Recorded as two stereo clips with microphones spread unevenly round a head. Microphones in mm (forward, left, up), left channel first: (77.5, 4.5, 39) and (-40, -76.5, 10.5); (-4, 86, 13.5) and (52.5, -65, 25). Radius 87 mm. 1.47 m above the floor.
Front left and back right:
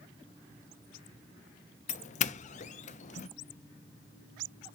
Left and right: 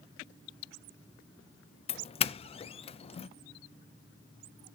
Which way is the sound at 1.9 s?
75° left.